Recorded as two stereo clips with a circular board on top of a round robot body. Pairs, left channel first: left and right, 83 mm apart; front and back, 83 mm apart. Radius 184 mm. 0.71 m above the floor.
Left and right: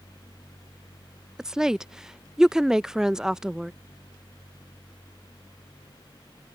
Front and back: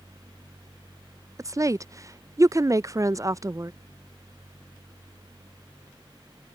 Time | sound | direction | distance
1.4 | a woman speaking | 170° right | ?